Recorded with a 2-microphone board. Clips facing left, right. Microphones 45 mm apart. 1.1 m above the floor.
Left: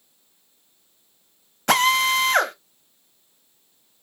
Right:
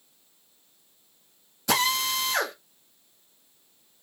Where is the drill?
55° left (ahead or behind), 1.1 m.